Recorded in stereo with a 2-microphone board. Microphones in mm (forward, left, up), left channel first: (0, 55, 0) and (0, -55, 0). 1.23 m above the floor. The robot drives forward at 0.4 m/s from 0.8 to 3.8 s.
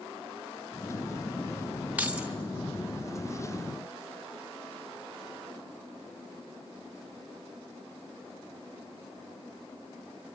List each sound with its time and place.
2.0 s keys jangling: 15° right (ahead or behind), 1.3 m; by 2.3 s 10° right (ahead or behind), 1.4 m